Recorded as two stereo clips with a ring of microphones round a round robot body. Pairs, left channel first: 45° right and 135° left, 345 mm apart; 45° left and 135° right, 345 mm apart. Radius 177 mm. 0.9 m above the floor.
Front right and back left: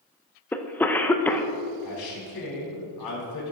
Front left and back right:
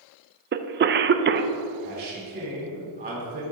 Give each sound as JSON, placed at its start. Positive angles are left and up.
{"t": 0.5, "sound": "a cough", "azimuth_deg": -125, "distance_m": 0.6}
{"t": 1.8, "sound": "a man speaking", "azimuth_deg": -70, "distance_m": 3.0}